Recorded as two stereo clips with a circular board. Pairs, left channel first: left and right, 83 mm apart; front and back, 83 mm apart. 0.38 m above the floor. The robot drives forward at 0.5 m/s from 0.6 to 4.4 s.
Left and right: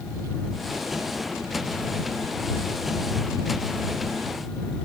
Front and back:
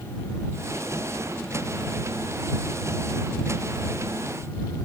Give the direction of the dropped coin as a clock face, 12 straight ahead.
No dropped coin in this recording.